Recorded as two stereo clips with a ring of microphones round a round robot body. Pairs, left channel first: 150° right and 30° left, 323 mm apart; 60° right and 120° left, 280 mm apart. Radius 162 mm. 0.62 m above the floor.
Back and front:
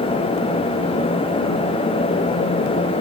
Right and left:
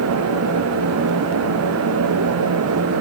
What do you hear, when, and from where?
Only background noise.